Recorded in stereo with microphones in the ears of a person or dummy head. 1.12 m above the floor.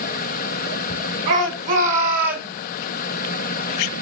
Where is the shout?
45° right (ahead or behind), 5 m; by 2.5 s 55° right (ahead or behind), 3.5 m.